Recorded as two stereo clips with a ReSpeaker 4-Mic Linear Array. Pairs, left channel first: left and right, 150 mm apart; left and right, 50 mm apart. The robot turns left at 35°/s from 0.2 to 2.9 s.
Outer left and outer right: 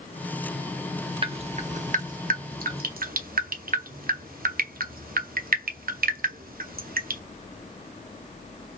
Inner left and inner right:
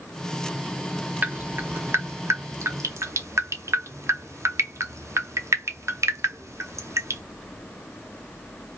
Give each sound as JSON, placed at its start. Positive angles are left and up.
{"t": 1.2, "sound": "dripping", "side_deg": -40, "distance_m": 0.6}